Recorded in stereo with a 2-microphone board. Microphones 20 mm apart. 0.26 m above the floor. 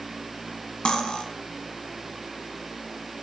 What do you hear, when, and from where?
0.8 s cutlery clinking: 50° left (ahead or behind), 1.3 m